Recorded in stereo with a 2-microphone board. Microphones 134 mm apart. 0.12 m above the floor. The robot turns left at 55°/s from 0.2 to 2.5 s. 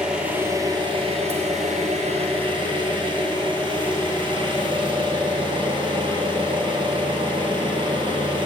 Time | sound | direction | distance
0.0 | an engine running | 5° right | 1.7 m